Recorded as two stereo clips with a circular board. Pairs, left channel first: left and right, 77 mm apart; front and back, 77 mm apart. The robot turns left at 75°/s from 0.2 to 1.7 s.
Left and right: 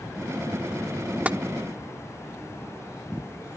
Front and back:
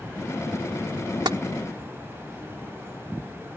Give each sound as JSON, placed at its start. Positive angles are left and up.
{"t": 1.2, "sound": "tapping", "azimuth_deg": -160}